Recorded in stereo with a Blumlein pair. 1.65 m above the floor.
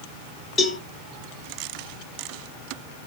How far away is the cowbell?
About 1.6 m.